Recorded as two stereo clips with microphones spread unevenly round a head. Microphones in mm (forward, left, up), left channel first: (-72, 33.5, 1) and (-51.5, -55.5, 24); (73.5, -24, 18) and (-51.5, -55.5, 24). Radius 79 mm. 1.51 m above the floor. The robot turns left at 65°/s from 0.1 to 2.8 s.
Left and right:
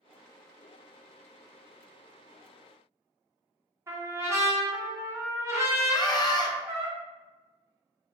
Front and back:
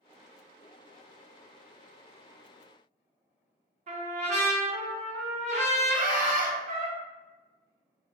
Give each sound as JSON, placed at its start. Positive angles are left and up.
{"t": 3.9, "sound": "a trumpet", "azimuth_deg": -135, "distance_m": 1.4}
{"t": 5.9, "sound": "a scream", "azimuth_deg": 150, "distance_m": 0.9}